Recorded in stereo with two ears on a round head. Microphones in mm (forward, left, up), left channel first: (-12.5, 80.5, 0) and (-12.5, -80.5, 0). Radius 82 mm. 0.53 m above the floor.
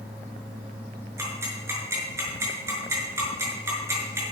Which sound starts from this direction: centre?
Ticking, at 1.2 s.